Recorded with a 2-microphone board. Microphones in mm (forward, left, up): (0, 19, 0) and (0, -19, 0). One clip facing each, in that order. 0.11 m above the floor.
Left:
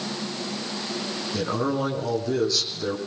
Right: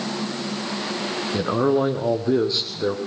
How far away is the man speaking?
About 4.5 m.